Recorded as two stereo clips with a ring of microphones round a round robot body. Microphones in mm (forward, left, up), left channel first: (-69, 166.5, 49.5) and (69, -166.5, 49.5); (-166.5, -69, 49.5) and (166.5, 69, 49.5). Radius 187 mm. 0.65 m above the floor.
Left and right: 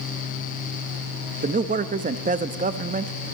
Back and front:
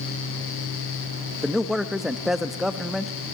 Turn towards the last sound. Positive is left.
turn(degrees=-65)